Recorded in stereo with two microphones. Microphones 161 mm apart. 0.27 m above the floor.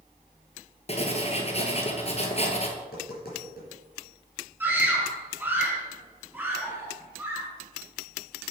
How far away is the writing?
About 1.2 m.